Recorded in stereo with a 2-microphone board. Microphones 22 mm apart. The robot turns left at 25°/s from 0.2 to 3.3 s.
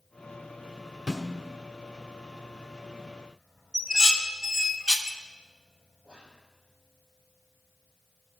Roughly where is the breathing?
No breathing in this recording.